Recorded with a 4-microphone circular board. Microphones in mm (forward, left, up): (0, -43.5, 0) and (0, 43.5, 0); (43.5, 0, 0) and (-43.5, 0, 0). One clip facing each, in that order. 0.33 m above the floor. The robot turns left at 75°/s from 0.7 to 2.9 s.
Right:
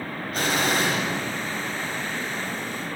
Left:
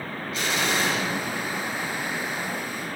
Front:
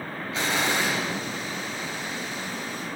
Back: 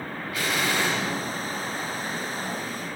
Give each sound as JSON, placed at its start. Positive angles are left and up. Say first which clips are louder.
{"t": 0.3, "sound": "an explosion", "louder": "right 2 dB, front 1 dB", "azimuth_deg": -60, "distance_m": 1.1}